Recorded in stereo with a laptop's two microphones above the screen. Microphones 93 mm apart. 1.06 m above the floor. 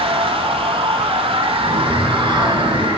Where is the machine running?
75° right (ahead or behind), 3 m.